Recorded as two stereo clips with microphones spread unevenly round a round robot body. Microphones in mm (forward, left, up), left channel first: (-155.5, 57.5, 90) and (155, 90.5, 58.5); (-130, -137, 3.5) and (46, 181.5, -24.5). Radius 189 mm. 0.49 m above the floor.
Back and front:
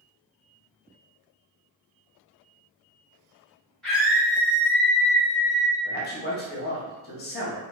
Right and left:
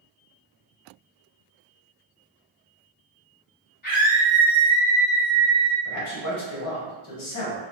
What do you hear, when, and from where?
3.8 s a scream: 75° right, 1.3 m; by 5.8 s 25° left, 1.7 m
5.8 s a man speaking: 130° right, 0.8 m